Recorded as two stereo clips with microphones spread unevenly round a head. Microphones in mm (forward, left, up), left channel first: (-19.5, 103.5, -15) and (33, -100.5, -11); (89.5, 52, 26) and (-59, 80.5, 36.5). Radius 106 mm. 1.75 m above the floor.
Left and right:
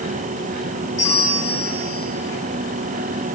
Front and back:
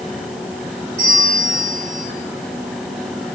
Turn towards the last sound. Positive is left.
turn(degrees=160)